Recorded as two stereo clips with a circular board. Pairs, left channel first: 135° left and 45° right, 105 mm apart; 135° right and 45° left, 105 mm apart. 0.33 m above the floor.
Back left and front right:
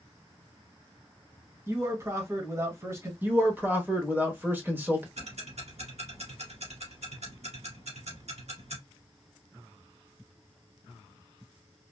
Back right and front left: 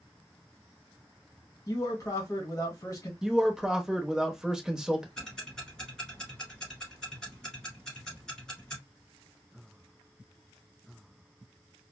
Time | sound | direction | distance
1.7 | a man speaking | 95° right | 1.5 m
3.2 | a man speaking | 30° right | 0.8 m
5.2 | ticking | 50° right | 1.5 m